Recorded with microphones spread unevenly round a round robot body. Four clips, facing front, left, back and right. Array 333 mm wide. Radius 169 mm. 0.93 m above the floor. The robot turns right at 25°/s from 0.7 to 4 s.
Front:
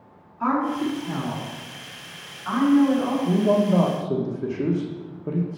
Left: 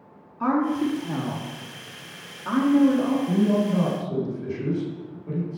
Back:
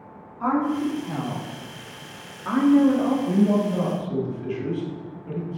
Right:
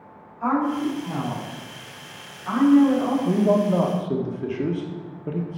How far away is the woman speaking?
About 2 m.